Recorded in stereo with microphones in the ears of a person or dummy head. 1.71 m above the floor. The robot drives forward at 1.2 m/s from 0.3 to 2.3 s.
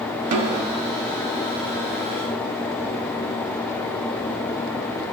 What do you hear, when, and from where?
0.3 s a snare drum: 40° right (ahead or behind), 0.7 m; by 0.8 s 20° right (ahead or behind), 1.2 m